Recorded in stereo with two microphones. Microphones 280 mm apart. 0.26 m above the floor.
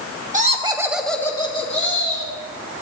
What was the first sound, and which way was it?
Laughter, 25° right (ahead or behind).